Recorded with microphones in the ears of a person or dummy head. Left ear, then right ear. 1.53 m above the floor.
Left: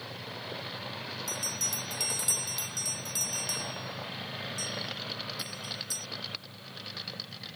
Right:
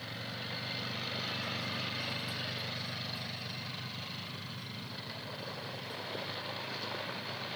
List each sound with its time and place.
1.3 s a bell: 75° left (ahead or behind)